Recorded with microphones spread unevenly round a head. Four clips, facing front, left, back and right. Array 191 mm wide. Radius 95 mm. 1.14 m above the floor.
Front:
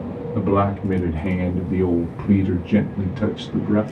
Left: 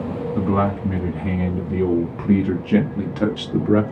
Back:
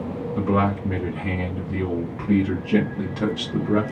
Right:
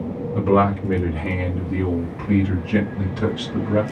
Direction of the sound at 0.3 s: 30° right.